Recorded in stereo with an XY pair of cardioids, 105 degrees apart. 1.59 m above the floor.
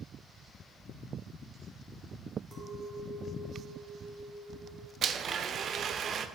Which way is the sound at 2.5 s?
45° right.